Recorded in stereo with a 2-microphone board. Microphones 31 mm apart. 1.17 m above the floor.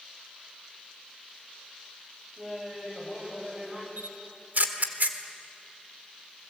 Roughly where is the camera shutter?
Right.